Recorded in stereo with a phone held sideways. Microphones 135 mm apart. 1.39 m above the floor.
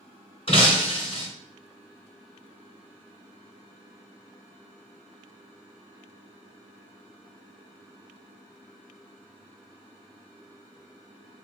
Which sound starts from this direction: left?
Breaking glass, at 0.5 s.